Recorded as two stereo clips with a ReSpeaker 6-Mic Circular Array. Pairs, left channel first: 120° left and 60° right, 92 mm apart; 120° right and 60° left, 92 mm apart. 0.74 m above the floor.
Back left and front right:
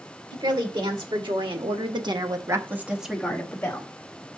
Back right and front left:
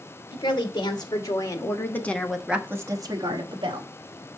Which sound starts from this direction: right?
A woman speaking, at 0.3 s.